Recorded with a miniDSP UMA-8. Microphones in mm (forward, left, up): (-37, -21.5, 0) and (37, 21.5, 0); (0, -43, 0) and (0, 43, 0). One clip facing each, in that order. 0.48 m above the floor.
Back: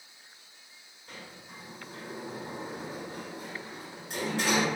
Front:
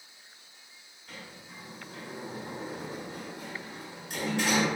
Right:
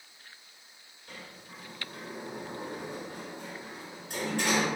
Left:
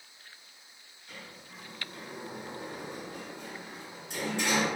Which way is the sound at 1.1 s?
105° right.